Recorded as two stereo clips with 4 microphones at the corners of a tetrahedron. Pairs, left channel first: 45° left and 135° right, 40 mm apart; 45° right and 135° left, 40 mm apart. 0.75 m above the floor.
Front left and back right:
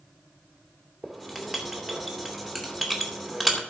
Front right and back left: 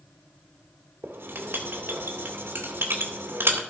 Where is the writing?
140° left, 2 m.